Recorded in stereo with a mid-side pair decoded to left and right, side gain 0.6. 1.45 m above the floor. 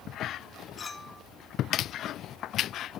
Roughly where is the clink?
Ahead left.